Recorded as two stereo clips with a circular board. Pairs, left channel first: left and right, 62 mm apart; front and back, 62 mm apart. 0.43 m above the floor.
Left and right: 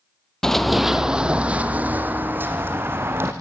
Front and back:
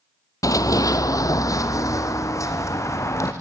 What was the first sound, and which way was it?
Running footsteps, 10° left.